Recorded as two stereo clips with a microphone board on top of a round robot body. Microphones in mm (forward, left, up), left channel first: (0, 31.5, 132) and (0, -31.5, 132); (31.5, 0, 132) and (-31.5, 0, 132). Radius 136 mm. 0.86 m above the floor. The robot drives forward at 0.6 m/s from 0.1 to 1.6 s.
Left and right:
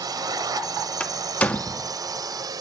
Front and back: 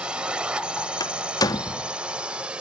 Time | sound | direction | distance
0.0 | a drone | 105° right | ?
1.0 | a door slam | 15° left | ?